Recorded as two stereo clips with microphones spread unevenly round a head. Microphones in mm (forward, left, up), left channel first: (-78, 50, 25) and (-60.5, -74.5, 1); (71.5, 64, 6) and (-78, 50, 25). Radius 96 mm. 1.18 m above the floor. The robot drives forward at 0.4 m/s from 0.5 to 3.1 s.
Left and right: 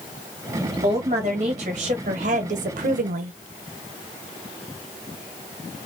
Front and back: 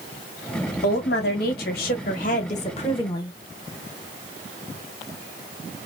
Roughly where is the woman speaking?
Ahead right.